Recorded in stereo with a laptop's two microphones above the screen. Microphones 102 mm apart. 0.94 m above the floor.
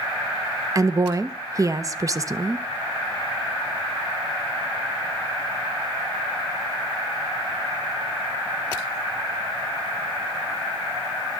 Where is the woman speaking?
35° right (ahead or behind), 0.8 m.